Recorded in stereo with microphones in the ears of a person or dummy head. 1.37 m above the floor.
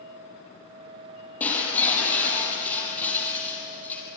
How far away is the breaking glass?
About 5.5 m.